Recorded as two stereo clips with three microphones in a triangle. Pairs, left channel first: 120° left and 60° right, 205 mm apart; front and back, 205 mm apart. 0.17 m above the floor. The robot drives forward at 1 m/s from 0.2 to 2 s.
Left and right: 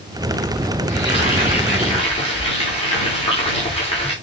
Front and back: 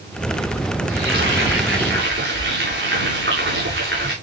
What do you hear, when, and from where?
0.9 s frying: straight behind, 9.5 m